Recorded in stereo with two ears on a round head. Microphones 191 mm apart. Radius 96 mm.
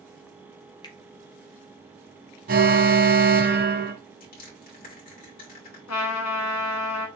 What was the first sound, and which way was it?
A finger snap, 20° left (ahead or behind).